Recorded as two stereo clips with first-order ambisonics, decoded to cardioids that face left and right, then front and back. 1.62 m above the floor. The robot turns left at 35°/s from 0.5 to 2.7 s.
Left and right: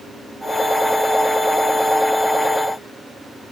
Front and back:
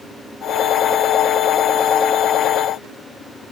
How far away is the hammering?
No hammering in this recording.